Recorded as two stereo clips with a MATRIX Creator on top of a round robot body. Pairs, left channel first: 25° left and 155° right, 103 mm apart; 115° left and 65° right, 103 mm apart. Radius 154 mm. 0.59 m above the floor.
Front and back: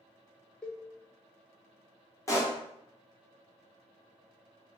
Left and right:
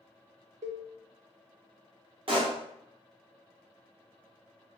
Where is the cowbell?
60° right, 0.6 m.